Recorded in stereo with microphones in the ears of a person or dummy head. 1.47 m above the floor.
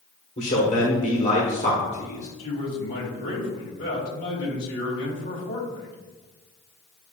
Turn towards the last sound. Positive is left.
turn(degrees=65)  # may be behind; listen again after turning